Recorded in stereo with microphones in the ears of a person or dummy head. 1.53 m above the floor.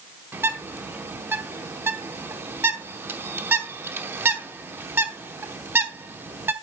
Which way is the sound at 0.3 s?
15° right (ahead or behind).